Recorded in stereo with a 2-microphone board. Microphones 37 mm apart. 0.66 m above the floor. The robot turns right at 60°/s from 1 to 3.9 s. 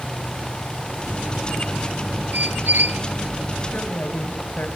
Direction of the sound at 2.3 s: 110° right.